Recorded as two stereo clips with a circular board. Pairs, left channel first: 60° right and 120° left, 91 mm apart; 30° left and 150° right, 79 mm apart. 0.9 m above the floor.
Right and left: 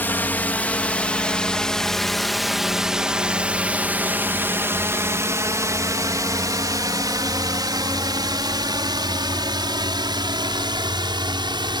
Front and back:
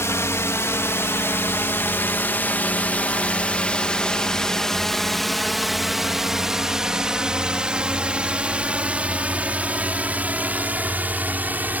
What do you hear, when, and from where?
0.0 s a drone: straight ahead; by 11.8 s 145° left